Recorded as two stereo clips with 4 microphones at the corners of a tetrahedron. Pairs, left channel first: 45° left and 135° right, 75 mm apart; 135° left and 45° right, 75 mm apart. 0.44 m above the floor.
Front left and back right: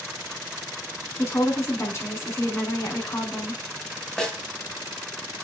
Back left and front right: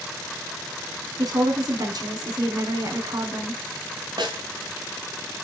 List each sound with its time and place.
1.2 s a woman speaking: 10° right, 5 m
4.2 s a snare drum: 40° right, 3 m